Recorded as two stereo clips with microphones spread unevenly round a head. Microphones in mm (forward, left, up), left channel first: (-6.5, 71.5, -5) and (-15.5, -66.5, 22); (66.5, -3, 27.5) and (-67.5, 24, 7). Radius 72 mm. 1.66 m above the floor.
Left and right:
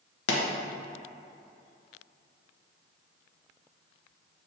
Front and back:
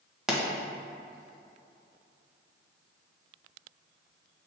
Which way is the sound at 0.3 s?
80° left.